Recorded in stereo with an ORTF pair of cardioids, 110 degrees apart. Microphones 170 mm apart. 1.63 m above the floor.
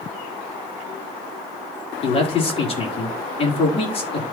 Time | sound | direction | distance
2.0 | a man speaking | 35° left | 4 m